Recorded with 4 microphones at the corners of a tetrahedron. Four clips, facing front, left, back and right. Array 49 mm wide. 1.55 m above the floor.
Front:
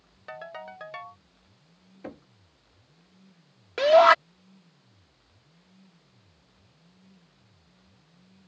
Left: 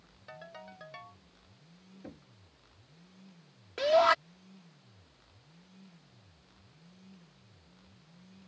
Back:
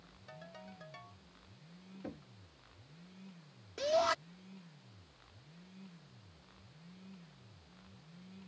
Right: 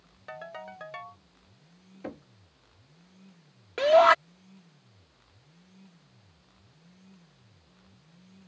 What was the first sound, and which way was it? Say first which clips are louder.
A ringtone: right 7 dB, front 13 dB; 30° right.